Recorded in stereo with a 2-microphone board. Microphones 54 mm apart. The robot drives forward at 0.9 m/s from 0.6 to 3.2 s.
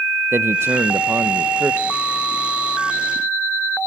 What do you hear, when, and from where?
0.3 s a man speaking: 55° right (ahead or behind), 0.6 m; by 2.0 s 25° right (ahead or behind), 1.2 m